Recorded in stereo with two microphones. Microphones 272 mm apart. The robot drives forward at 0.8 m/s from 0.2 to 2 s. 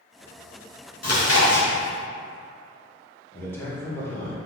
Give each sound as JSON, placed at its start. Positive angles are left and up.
{"t": 1.0, "sound": "chewing", "side_deg": 65, "distance_m": 0.7}
{"t": 3.3, "sound": "a man speaking", "side_deg": 5, "distance_m": 0.8}